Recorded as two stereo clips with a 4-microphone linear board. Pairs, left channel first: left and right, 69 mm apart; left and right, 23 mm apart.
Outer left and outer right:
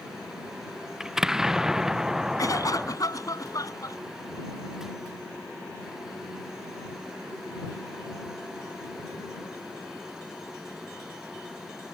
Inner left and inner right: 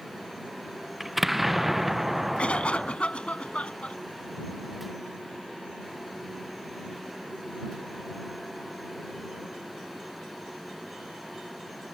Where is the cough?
60° left (ahead or behind).